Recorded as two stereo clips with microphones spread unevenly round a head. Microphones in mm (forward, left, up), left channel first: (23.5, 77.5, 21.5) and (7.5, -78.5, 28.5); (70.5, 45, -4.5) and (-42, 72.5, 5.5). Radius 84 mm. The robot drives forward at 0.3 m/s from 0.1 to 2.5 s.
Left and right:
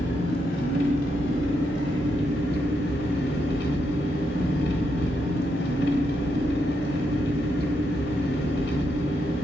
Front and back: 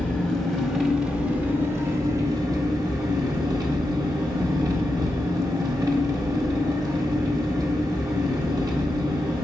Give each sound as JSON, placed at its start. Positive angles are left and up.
{"t": 0.0, "sound": "an engine running", "azimuth_deg": 70, "distance_m": 1.0}